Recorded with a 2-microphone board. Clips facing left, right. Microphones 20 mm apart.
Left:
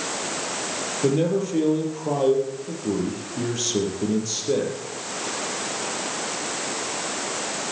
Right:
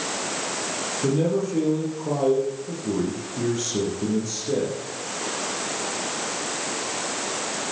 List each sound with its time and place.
1.0 s a man speaking: 20° left (ahead or behind), 5.5 m